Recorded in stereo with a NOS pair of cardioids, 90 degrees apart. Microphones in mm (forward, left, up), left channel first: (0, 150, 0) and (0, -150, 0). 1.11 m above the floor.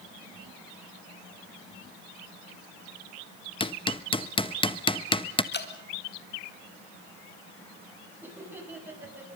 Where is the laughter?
5° right, 9 m.